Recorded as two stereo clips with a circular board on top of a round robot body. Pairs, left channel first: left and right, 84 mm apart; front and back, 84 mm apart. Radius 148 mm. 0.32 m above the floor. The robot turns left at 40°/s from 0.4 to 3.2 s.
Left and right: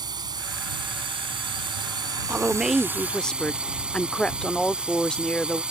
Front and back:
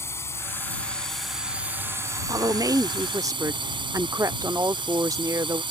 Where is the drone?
55° right; by 5.7 s 170° right.